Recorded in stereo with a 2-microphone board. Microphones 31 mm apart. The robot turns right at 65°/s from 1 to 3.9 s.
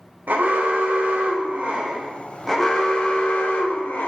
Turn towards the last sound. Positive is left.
turn(degrees=100)